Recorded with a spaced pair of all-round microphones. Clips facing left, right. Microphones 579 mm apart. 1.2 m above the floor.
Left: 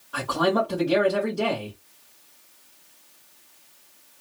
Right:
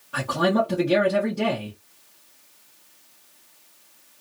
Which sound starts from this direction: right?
A man speaking, at 0.1 s.